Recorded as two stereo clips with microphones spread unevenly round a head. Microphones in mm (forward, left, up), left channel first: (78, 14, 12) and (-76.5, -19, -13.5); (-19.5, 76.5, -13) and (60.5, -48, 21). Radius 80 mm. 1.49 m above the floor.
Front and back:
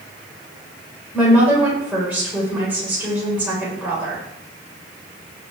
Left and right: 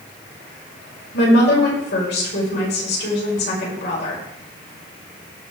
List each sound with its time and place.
1.1 s a woman speaking: 110° left, 5.5 m